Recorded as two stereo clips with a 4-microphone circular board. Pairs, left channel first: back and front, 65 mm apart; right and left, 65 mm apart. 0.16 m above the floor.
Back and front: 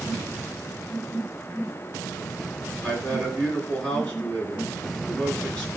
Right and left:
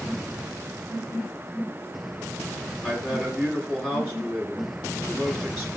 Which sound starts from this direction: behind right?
A man speaking, at 2.8 s.